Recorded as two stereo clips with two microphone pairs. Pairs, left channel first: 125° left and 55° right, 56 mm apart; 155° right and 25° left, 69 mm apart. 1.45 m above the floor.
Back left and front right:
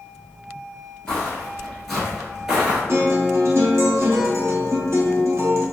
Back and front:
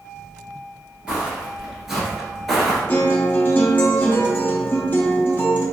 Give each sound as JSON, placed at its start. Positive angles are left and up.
{"t": 1.1, "sound": "footsteps", "azimuth_deg": 75, "distance_m": 1.5}
{"t": 2.9, "sound": "a guitar", "azimuth_deg": -95, "distance_m": 0.6}